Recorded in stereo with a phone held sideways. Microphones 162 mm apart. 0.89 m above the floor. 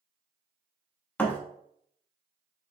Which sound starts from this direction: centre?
A thud, at 1.2 s.